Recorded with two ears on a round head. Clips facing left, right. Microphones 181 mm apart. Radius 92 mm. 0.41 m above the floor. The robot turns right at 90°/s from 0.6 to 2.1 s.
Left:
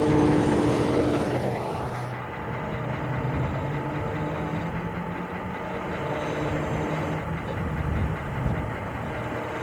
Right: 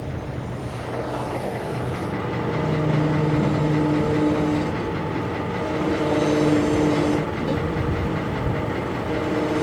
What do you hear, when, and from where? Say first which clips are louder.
0.0 s an engine running: left 12 dB; 100° left; by 9.6 s 125° right